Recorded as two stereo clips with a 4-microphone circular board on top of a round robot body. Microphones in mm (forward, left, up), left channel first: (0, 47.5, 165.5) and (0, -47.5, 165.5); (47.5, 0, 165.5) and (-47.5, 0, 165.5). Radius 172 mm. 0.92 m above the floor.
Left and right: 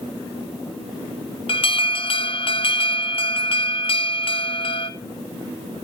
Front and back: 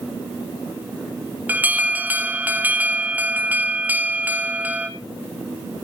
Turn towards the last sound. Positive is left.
turn(degrees=105)